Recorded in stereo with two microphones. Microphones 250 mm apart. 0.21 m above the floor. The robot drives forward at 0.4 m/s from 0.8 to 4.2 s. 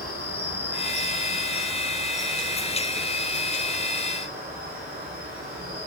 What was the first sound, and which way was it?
An insect, 75° right (ahead or behind).